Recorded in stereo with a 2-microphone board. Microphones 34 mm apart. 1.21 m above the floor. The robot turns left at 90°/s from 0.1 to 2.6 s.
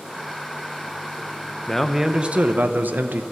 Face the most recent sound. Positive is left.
turn(degrees=-65)